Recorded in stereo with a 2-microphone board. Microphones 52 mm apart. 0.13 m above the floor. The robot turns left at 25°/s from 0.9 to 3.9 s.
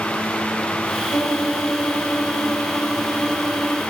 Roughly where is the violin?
Left.